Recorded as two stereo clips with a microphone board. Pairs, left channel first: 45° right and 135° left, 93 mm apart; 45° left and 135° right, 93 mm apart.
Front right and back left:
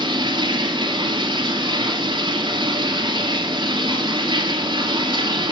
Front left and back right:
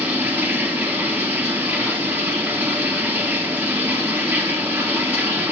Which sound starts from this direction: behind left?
Running water, at 0.0 s.